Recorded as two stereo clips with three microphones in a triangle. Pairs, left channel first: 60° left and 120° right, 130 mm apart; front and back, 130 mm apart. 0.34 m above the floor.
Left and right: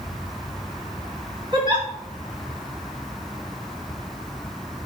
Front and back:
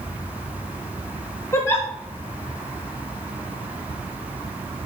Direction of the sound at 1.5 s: 70° right.